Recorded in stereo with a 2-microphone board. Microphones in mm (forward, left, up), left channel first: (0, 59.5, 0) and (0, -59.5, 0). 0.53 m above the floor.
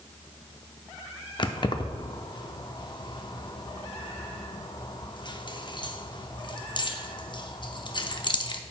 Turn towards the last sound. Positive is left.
turn(degrees=40)  # may be behind; listen again after turning